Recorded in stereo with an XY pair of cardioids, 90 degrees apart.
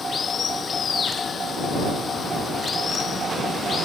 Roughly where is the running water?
Ahead left.